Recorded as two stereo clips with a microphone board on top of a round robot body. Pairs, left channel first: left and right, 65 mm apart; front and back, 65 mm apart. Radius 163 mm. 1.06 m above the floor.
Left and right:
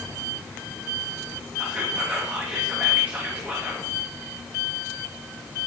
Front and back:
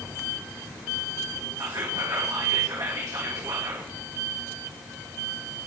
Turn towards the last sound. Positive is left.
turn(degrees=-160)